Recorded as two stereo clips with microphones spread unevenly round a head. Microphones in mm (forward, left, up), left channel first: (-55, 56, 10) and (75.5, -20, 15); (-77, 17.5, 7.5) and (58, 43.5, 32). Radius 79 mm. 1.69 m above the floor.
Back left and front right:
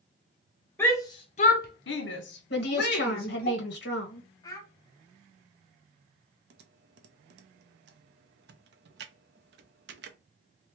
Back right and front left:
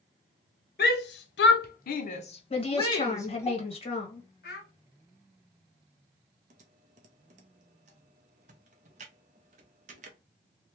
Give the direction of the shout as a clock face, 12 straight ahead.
4 o'clock.